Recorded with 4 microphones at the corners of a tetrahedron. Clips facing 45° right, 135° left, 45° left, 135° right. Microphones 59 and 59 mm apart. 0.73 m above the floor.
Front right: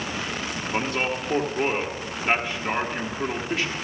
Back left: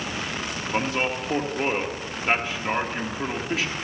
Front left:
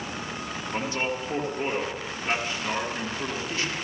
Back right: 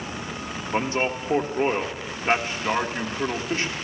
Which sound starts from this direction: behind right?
A man speaking, at 0.7 s.